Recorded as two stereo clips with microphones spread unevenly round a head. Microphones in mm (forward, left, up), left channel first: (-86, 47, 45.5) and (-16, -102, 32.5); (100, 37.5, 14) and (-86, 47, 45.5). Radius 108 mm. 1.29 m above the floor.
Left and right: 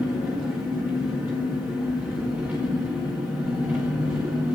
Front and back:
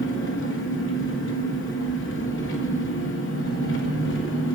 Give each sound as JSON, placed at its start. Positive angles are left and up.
{"t": 0.0, "sound": "an engine running", "azimuth_deg": 20, "distance_m": 1.6}